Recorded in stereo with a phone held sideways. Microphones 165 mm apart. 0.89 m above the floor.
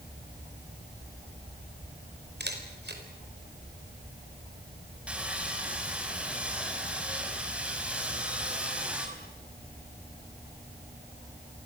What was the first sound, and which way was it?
A camera shutter, 75° right (ahead or behind).